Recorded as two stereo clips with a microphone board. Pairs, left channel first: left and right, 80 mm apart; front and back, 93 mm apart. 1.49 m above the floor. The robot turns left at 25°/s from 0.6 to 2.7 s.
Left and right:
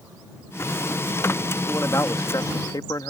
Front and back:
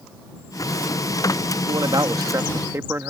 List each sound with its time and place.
1.7 s a man speaking: 145° left; by 3.1 s 120° left